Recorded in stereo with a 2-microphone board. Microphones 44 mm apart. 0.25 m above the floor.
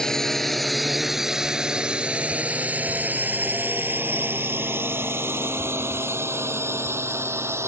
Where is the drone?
10° left (ahead or behind); by 7.7 s 75° right (ahead or behind).